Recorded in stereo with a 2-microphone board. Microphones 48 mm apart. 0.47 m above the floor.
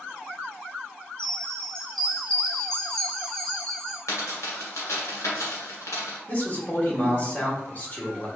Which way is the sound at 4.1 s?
80° left.